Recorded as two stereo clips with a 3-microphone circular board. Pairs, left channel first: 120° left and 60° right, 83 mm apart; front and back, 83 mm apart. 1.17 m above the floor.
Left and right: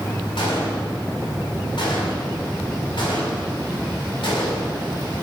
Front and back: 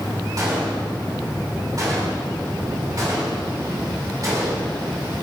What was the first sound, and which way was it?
A gunshot, 135° left.